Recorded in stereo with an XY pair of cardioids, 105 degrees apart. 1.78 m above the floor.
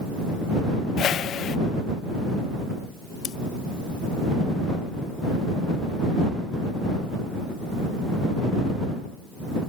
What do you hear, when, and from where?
1.0 s a whoosh: 65° left
3.2 s scissors: 70° left